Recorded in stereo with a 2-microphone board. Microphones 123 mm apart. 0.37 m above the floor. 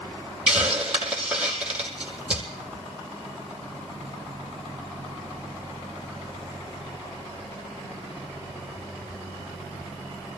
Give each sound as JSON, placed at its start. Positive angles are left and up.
{"t": 0.5, "sound": "a hiss", "side_deg": -10, "distance_m": 3.0}